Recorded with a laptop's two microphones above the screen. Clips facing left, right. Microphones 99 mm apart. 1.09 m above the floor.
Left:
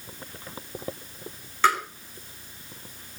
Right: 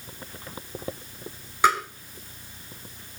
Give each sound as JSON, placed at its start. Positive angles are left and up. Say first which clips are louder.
{"t": 1.6, "sound": "tapping", "louder": "right 1 dB", "side_deg": -15, "distance_m": 5.0}